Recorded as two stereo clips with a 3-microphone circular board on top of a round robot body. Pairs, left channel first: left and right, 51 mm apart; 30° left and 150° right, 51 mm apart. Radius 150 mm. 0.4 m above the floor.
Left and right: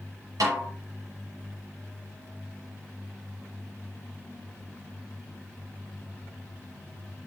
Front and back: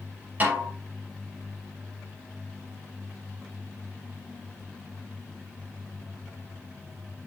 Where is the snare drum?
90° right, 6 m.